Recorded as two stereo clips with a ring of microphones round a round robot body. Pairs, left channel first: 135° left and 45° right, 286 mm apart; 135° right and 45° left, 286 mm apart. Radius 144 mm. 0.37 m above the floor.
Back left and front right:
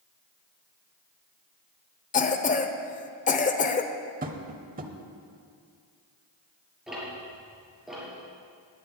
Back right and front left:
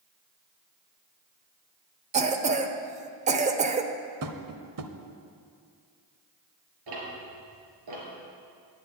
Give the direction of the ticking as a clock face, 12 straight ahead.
11 o'clock.